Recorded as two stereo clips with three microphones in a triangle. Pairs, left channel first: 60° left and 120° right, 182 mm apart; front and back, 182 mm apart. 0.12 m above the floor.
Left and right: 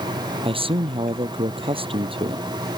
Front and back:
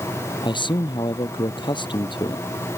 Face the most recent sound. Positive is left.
turn(degrees=-60)